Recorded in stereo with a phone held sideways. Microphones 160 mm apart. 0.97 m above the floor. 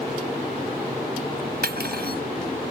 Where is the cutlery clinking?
85° right.